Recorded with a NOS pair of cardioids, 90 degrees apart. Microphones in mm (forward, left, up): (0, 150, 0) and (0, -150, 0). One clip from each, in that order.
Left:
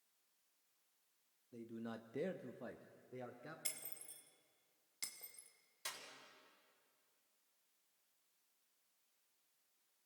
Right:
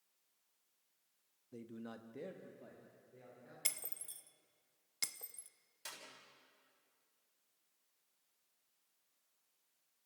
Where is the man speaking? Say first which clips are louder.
Left 1 dB; 25° right, 1.2 m; by 3.5 s 75° left, 2.5 m.